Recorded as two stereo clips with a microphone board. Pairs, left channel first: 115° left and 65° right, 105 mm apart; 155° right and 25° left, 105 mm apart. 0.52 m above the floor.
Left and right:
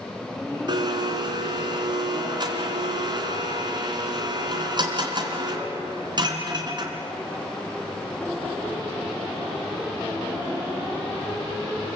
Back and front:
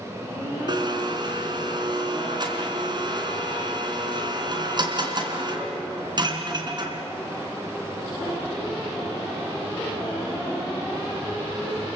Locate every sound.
0.7 s a blender: 25° right, 3.5 m